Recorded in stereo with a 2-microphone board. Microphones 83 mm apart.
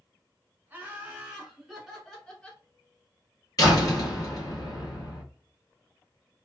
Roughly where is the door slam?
Left.